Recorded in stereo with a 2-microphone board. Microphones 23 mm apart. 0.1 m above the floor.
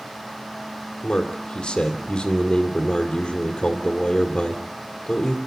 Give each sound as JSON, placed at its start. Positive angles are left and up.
{"t": 1.0, "sound": "a man speaking", "side_deg": 50, "distance_m": 2.0}